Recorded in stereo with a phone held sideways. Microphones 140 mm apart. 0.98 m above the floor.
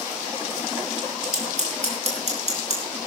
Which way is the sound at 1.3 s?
55° right (ahead or behind).